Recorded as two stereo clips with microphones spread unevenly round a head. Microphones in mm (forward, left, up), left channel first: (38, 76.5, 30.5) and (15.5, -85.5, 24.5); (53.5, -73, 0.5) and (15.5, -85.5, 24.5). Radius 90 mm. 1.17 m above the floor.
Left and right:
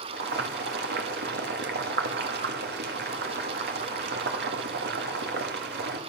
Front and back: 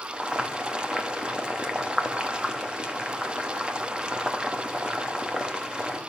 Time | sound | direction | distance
0.1 | boiling | 90° right | 2.5 m